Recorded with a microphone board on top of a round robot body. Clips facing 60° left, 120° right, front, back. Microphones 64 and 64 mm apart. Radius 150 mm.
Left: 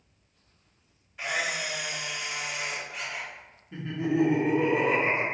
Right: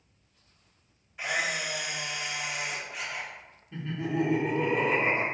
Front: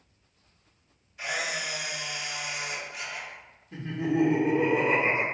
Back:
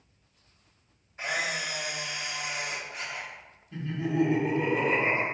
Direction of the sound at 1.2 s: 155° left.